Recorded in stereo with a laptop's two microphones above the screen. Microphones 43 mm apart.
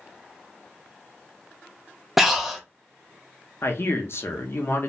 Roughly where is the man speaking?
Left.